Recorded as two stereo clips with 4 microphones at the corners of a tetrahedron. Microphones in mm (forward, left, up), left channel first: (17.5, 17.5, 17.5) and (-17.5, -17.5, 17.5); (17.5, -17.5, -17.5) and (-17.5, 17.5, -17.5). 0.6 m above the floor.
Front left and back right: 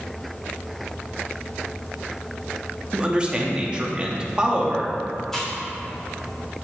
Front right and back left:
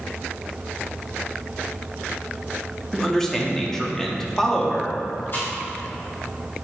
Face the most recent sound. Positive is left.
turn(degrees=-35)